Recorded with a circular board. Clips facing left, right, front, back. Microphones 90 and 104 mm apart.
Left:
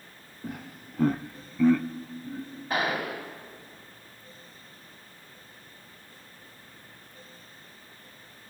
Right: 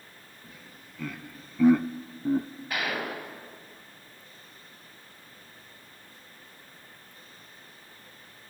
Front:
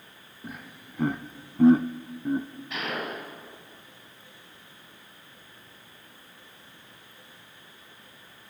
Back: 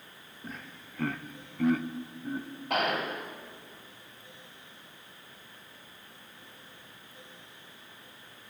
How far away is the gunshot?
About 5 m.